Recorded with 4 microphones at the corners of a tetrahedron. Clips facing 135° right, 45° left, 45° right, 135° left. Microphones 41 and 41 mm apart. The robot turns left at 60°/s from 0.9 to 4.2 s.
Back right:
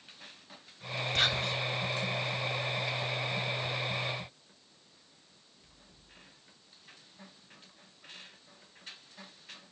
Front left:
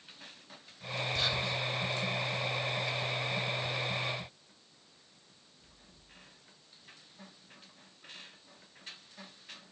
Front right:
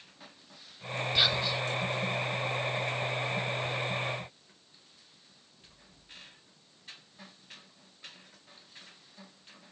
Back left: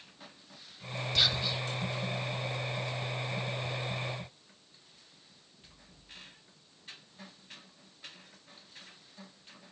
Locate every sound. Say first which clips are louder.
1.1 s whispering: back right 4 dB, front right 2 dB; 120° right, 3.5 m; by 1.6 s 145° right, 3.5 m